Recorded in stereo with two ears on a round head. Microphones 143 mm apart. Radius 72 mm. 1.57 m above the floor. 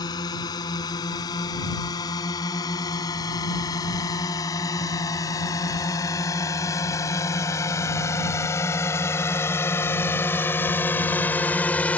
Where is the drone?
25° left (ahead or behind); by 12.0 s 10° left (ahead or behind).